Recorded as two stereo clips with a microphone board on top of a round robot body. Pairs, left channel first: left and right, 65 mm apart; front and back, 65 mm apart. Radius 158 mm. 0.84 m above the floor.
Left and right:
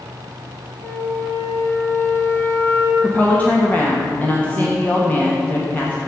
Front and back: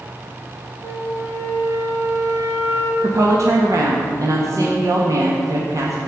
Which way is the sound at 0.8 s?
145° left.